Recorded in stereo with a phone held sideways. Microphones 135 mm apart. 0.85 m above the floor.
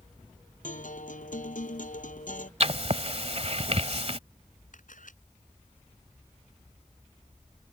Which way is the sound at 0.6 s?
70° left (ahead or behind).